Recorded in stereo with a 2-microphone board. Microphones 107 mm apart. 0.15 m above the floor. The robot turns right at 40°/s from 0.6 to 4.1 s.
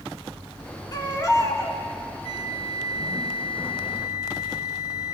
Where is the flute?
75° left, 1.1 m; by 5.1 s 145° left, 1.1 m.